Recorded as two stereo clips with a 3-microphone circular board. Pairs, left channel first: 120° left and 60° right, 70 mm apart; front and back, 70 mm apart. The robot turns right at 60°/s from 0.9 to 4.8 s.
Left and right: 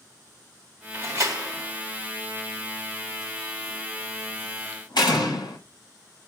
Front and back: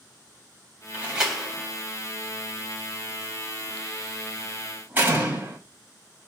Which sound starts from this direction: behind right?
A door slam, at 0.9 s.